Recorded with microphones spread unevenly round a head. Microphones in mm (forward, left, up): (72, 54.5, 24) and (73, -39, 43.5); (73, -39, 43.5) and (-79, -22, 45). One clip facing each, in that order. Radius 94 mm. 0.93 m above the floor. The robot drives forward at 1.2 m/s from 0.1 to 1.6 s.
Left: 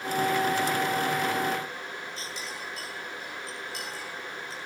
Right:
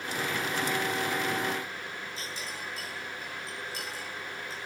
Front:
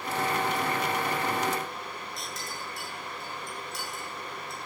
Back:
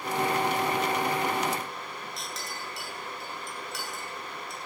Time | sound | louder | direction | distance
2.2 | a clink | left 1 dB, even | 140° left | 9.5 m